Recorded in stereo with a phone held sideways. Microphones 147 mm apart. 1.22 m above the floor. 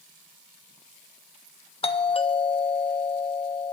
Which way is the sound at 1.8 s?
40° left (ahead or behind).